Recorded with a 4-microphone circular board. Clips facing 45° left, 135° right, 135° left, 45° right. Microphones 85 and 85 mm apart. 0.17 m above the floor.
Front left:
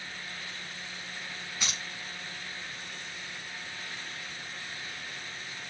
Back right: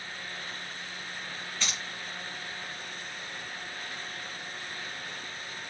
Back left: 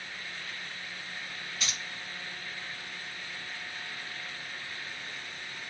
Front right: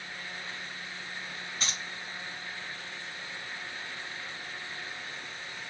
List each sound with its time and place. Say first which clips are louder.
1.6 s keys jangling: back right 1 dB, front right 1 dB; 25° right, 1.1 m